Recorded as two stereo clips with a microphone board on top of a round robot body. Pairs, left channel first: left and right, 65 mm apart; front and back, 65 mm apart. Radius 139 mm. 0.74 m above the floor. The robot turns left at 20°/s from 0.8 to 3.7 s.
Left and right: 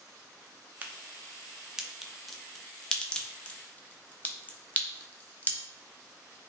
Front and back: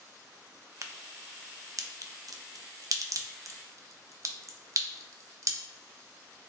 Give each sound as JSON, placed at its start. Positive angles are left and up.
{"t": 0.8, "sound": "a crack", "azimuth_deg": -150, "distance_m": 0.5}